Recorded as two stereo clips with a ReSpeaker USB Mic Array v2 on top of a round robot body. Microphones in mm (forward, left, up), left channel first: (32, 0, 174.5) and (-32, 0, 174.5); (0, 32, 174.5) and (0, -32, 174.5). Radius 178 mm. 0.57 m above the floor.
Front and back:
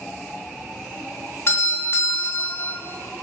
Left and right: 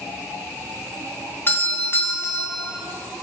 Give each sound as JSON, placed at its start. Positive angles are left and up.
{"t": 1.5, "sound": "a doorbell", "azimuth_deg": 45, "distance_m": 2.5}